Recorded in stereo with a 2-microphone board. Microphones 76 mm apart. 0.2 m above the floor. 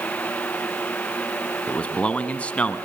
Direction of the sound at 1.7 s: 15° left (ahead or behind).